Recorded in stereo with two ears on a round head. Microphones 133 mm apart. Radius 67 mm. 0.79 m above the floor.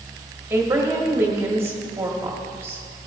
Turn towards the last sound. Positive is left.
turn(degrees=-15)  # may be behind; listen again after turning